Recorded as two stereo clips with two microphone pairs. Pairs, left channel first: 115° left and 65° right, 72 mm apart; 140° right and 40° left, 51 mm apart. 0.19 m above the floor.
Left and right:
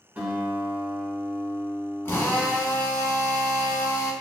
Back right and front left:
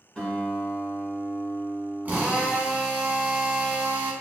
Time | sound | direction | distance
0.1 | a guitar | 90° right | 1.2 m
2.0 | a drill | 75° left | 0.7 m